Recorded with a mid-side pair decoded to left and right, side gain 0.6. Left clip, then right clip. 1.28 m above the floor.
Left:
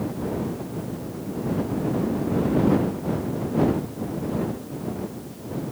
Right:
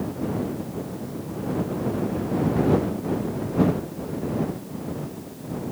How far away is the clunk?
I don't hear a clunk.